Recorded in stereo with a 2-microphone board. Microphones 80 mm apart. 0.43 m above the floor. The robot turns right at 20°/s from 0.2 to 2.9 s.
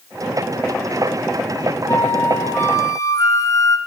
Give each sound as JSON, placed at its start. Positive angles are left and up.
{"t": 1.9, "sound": "a flute", "side_deg": 30, "distance_m": 0.9}